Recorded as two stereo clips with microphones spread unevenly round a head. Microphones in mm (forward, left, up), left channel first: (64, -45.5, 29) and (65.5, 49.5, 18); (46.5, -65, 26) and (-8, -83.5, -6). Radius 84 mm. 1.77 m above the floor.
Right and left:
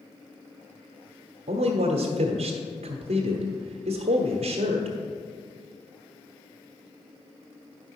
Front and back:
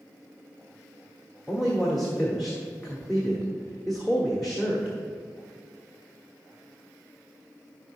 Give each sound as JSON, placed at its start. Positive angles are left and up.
{"t": 1.5, "sound": "a man speaking", "azimuth_deg": 105, "distance_m": 1.3}